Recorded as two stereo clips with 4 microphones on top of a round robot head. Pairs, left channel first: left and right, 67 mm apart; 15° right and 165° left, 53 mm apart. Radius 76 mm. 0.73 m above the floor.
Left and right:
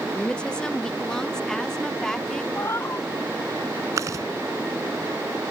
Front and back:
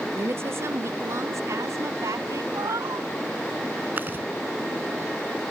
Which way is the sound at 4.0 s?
130° right.